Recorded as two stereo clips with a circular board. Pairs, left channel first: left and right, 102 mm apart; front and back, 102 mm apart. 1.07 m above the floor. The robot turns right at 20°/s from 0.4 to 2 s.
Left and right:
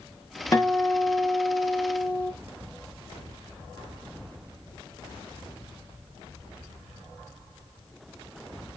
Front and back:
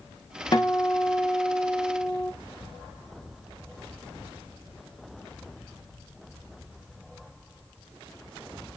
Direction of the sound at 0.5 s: 40° left.